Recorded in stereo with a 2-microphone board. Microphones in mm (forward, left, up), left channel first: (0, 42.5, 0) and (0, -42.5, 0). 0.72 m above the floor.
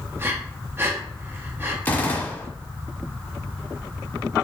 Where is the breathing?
25° right (ahead or behind), 0.7 m.